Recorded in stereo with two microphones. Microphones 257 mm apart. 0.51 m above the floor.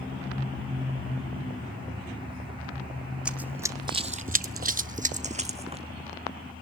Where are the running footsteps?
5° right (ahead or behind), 1.1 m; by 5.9 s 20° right (ahead or behind), 1.6 m.